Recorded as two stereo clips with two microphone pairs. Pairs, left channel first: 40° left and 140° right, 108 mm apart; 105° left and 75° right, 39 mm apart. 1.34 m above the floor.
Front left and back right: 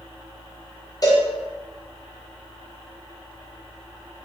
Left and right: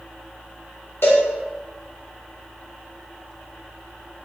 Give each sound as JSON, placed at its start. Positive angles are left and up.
{"t": 1.0, "sound": "a cowbell", "azimuth_deg": 95, "distance_m": 0.9}